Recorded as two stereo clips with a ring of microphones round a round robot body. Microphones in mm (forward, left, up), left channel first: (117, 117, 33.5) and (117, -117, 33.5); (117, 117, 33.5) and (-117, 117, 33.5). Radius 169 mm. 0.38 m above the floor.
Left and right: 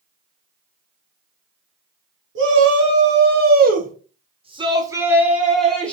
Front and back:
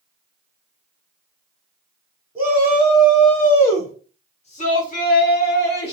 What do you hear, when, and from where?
2.4 s a shout: 100° right, 1.5 m; by 5.9 s 5° left, 1.4 m